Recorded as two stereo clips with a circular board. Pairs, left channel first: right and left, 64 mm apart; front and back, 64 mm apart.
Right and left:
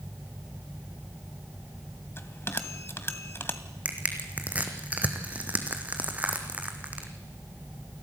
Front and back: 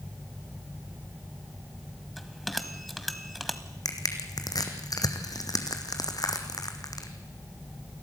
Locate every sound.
2.2 s a bell: 85° right, 1.3 m
3.9 s crushing: 25° left, 2 m